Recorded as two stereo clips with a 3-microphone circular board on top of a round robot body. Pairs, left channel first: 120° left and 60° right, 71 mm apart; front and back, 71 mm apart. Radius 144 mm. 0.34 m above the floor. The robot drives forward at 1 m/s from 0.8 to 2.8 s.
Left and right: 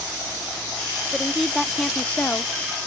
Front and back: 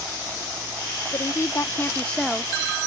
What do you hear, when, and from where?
1.1 s a woman speaking: 20° left; by 2.5 s 105° left